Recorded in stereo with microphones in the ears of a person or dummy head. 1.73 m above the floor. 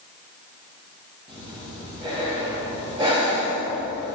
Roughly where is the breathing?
Right.